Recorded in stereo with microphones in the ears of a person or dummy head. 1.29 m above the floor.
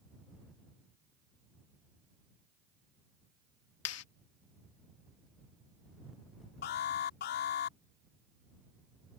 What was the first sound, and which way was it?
A clap, 80° left.